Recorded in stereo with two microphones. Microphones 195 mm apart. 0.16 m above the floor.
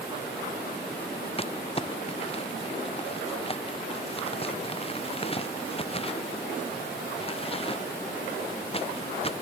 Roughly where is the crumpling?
Left.